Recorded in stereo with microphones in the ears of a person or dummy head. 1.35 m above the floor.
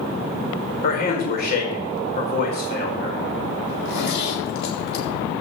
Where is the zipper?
70° left (ahead or behind), 3.5 m.